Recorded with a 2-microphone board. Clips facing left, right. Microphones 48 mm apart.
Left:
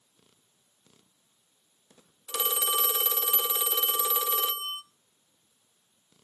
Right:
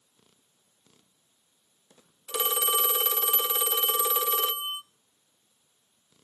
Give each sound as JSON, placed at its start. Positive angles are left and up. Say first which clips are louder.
{"t": 2.3, "sound": "a phone ringing", "louder": "right 2 dB", "side_deg": -20, "distance_m": 0.7}